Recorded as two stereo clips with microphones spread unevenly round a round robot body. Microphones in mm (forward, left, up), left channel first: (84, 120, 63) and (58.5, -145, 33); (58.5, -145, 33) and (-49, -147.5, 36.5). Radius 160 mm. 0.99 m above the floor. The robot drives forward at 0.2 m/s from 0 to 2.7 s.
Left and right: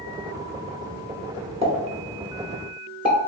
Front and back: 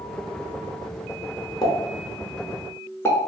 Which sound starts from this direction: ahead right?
A pop, at 1.6 s.